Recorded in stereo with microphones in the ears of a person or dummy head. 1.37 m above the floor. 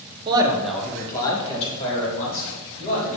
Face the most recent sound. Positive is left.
turn(degrees=50)  # may be behind; listen again after turning